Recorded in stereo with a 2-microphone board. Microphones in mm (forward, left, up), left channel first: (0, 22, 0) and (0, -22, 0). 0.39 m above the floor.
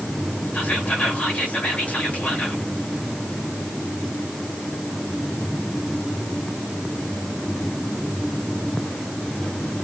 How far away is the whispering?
About 1.6 m.